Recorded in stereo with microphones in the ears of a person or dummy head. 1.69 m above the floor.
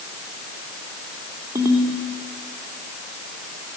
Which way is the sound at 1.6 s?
20° right (ahead or behind).